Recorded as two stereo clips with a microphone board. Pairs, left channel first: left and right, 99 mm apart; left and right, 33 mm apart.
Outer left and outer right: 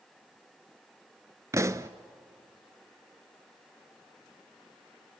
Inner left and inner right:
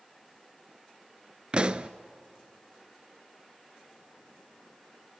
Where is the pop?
30° right (ahead or behind), 0.5 m.